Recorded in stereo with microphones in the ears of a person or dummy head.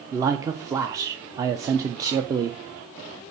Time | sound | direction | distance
0.1 | a man speaking | 20° right (ahead or behind) | 0.7 m